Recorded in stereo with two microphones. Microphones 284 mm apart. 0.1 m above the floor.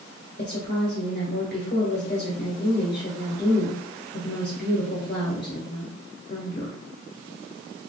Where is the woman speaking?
40° left (ahead or behind), 1.4 m.